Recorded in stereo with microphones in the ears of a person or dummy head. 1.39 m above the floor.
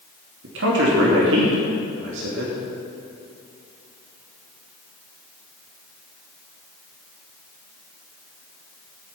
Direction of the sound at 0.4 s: 75° right (ahead or behind).